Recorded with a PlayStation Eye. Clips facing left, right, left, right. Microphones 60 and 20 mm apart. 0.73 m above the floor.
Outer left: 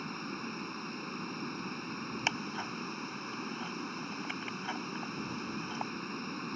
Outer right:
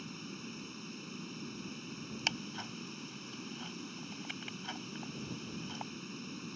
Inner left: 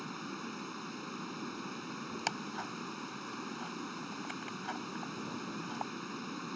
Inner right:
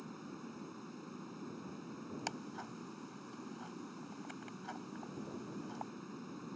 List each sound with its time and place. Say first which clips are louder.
0.0 s running water: outer left 6 dB, inner left 7 dB; 55° left (ahead or behind)
2.3 s ticking: outer left 4 dB, inner left 8 dB; 25° left (ahead or behind)